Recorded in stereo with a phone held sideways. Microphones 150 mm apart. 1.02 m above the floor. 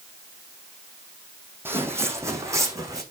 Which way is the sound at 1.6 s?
15° right (ahead or behind).